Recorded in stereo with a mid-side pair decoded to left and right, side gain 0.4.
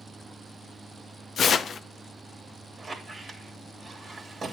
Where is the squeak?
40° right, 2.5 m.